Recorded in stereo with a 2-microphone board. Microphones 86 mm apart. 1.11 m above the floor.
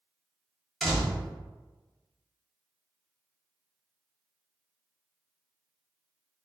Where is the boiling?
I don't hear boiling.